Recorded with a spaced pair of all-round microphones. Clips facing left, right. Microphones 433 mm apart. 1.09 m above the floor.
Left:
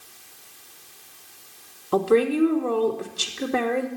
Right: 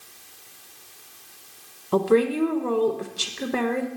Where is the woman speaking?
Centre (ahead or behind), 0.9 m.